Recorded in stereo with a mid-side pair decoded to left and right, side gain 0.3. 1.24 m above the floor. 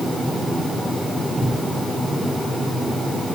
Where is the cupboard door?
35° right, 9 m.